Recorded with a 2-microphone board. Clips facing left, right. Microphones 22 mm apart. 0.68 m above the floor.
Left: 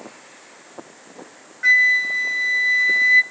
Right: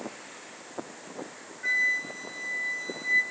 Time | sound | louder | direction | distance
1.6 | a flute | left 11 dB | 60° left (ahead or behind) | 1.0 m